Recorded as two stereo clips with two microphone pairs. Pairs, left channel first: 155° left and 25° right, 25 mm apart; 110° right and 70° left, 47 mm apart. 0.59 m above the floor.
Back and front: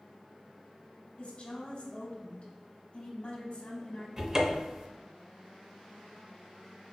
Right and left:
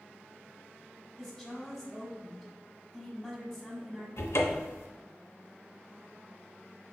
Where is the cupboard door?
95° right, 0.6 m.